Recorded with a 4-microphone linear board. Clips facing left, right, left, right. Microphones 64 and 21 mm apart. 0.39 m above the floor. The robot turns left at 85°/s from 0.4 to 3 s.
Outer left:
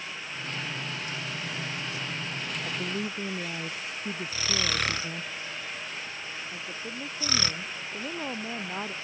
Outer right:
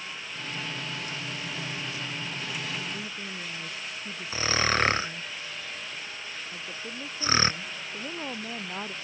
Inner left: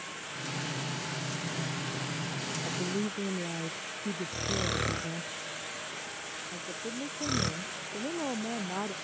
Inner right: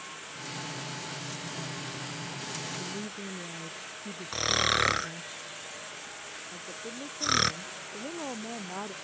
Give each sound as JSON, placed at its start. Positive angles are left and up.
{"t": 2.6, "sound": "a woman speaking", "side_deg": 65}
{"t": 4.3, "sound": "snoring", "side_deg": -35}
{"t": 6.5, "sound": "a woman speaking", "side_deg": 5}